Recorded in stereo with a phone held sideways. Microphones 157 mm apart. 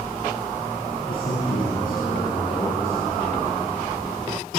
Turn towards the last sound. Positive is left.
turn(degrees=70)  # may be behind; listen again after turning